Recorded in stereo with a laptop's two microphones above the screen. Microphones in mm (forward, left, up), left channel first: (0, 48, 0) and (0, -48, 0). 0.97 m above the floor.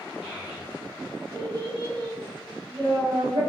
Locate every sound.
0.2 s a child speaking: 5° right (ahead or behind), 1.9 m; by 3.4 s 70° right (ahead or behind), 2 m